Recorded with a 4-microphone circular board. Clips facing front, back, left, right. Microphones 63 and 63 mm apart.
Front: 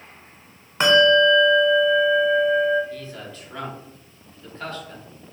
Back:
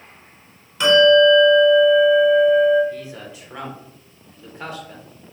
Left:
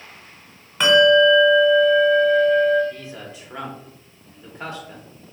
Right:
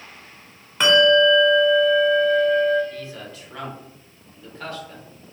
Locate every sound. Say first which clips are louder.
0.8 s a bell: back 3 dB, left 2 dB; 5° right, 1.0 m
2.9 s a man speaking: back 2 dB, right 1 dB; 125° left, 0.9 m